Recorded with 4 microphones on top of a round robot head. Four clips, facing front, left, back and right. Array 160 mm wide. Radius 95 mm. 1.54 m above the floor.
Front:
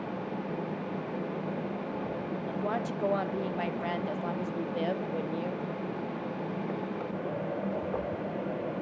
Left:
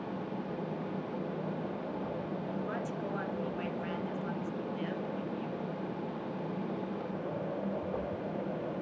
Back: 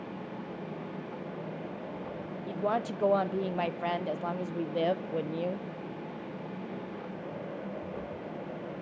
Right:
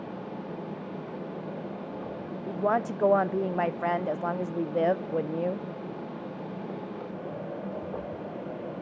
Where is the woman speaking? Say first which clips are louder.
Right 9 dB, back 3 dB; 105° right, 0.8 m.